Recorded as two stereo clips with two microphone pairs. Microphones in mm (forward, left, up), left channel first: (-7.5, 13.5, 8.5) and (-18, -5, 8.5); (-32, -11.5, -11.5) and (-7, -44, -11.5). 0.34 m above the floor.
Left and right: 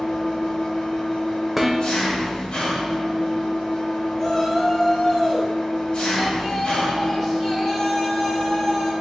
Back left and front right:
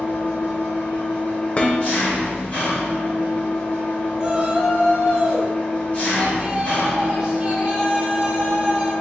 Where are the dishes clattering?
165° left, 0.7 m.